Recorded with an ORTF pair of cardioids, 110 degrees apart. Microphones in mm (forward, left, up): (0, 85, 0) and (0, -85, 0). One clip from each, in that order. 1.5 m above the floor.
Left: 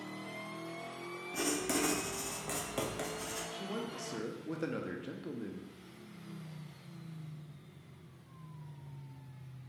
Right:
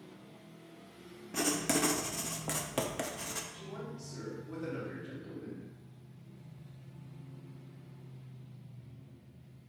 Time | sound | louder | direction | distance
1.3 | writing | right 3 dB | 20° right | 0.5 m
3.5 | a man speaking | left 5 dB | 70° left | 0.8 m